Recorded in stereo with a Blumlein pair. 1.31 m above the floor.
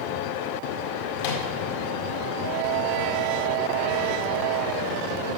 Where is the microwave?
50° left, 1.8 m.